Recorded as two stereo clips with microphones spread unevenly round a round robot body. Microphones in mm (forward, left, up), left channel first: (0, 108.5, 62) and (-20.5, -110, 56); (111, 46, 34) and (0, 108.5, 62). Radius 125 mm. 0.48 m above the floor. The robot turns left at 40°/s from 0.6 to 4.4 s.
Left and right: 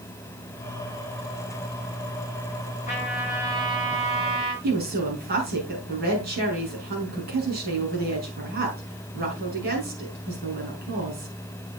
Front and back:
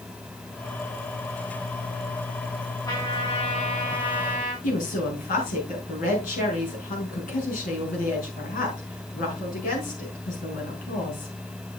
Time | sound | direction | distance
2.9 | a trumpet | 25° left | 6 m
4.6 | a woman speaking | 45° right | 5.5 m